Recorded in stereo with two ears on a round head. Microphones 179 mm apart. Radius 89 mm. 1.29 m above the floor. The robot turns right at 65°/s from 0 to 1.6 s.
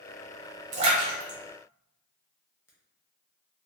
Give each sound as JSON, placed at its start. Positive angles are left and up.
{"t": 0.7, "sound": "a splash", "side_deg": -40, "distance_m": 0.8}